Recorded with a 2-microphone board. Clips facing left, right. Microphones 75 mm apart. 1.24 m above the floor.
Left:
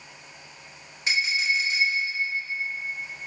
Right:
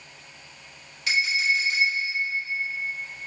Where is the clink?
30° left (ahead or behind), 1.7 m.